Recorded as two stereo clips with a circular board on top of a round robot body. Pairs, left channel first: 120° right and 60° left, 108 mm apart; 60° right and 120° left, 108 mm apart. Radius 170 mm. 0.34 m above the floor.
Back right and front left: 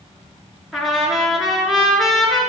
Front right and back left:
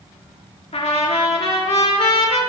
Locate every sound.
0.7 s a trumpet: 30° right, 4.5 m